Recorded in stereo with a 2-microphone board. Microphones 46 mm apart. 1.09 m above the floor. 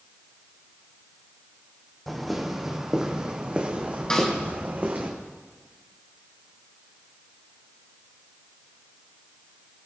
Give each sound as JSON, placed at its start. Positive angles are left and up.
{"t": 2.1, "sound": "footsteps", "side_deg": 0, "distance_m": 2.5}
{"t": 4.1, "sound": "a snare drum", "side_deg": 20, "distance_m": 3.5}